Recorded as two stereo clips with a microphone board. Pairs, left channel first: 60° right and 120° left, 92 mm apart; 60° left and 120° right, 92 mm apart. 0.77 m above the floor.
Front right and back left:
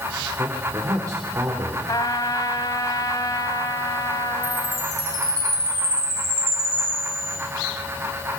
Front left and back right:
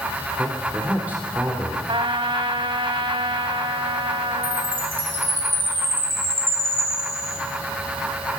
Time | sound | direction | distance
0.4 | a man speaking | 170° left | 3 m
1.9 | a trumpet | 100° right | 1.3 m
4.4 | a chime | 175° left | 6 m